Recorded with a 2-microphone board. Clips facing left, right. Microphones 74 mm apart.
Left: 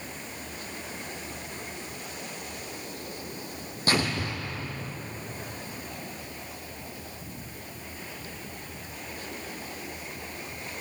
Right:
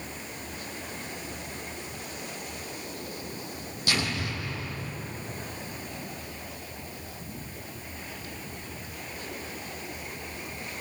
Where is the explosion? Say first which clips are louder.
Left 3 dB; 40° left (ahead or behind), 4 m.